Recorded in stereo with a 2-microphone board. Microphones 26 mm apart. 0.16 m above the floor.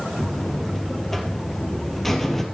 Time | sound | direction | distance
0.2 | a buzzer | 10° left (ahead or behind) | 1.5 m